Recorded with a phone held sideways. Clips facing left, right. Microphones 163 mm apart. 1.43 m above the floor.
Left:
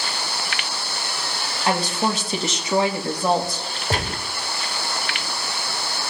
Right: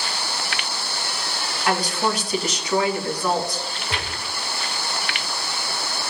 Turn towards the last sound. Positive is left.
turn(degrees=45)  # may be behind; listen again after turning